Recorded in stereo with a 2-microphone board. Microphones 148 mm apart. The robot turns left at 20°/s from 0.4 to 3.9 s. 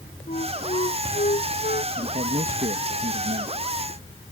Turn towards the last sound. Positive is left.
turn(degrees=-100)